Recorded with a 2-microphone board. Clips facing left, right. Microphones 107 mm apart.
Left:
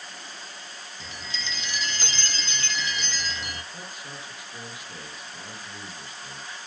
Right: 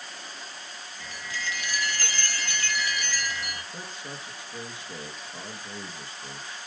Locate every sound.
1.0 s a chime: 20° left (ahead or behind), 0.7 m
3.7 s a man speaking: 25° right (ahead or behind), 1.9 m